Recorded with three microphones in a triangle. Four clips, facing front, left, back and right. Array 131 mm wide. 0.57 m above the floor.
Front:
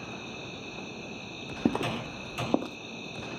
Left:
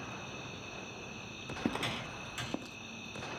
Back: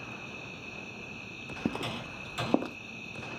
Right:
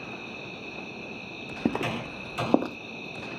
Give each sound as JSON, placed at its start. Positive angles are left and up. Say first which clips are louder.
{"t": 0.0, "sound": "an insect", "louder": "right 5 dB, front 4 dB", "azimuth_deg": -50}
{"t": 1.6, "sound": "footsteps", "louder": "right 8 dB, front 6 dB", "azimuth_deg": -35}